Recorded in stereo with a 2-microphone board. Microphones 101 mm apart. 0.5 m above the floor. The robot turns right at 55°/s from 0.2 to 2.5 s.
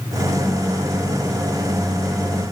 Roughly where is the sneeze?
I don't hear a sneeze.